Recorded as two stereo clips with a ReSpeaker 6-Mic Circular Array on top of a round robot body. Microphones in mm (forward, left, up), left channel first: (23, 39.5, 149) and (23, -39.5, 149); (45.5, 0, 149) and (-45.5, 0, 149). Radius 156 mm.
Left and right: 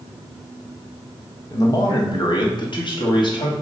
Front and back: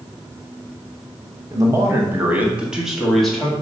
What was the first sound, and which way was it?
A man speaking, 130° left.